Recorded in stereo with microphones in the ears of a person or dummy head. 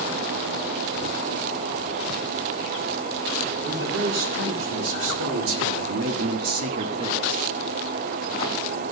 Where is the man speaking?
65° right (ahead or behind), 2.5 m; by 7.5 s 10° right (ahead or behind), 1.0 m.